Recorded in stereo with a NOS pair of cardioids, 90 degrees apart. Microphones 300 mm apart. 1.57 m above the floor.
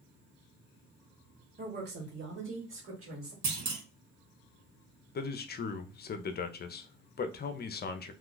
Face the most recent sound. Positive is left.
turn(degrees=35)